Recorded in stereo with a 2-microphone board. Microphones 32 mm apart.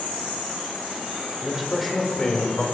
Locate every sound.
1.4 s a man speaking: 20° right (ahead or behind), 1.5 m; by 2.6 s 40° left (ahead or behind), 1.8 m